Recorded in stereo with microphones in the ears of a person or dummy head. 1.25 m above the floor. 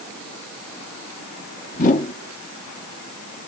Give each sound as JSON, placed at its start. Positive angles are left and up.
{"t": 1.7, "sound": "a whoosh", "side_deg": 45, "distance_m": 1.7}